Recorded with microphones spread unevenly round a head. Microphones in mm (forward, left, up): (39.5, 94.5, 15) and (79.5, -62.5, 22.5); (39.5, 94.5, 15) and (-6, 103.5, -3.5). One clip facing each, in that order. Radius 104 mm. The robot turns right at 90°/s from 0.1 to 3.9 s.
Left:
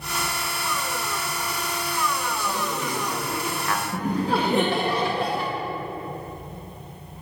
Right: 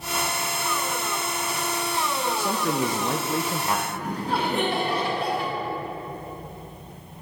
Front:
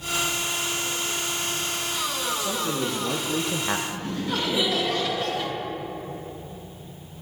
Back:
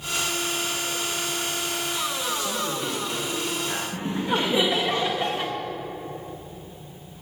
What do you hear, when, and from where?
2.4 s a man speaking: 125° right, 0.6 m; by 3.8 s 5° left, 0.6 m
3.9 s laughter: 105° left, 1.4 m